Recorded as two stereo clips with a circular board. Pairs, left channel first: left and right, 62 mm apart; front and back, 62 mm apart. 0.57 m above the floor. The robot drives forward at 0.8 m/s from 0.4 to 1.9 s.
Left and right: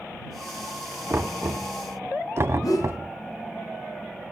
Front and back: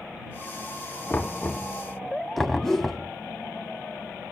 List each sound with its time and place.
1.1 s knocking: 50° right, 1.3 m; by 3.1 s 90° right, 1.1 m
2.6 s a whoosh: 80° left, 1.2 m